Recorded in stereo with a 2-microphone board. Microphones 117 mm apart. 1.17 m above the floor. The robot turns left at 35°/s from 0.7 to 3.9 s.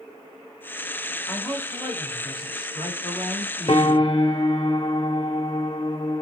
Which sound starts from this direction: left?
A piano, at 3.7 s.